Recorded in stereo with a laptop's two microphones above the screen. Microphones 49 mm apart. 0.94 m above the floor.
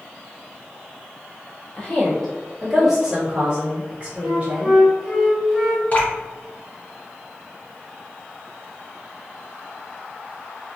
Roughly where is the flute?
Centre.